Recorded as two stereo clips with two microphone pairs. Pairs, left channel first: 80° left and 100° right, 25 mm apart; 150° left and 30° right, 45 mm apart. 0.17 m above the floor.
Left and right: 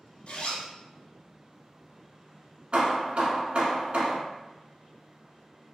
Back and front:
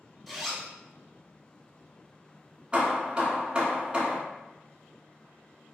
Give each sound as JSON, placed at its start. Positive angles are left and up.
{"t": 0.3, "sound": "a zipper", "azimuth_deg": 60, "distance_m": 0.6}
{"t": 2.7, "sound": "hammering", "azimuth_deg": -95, "distance_m": 0.7}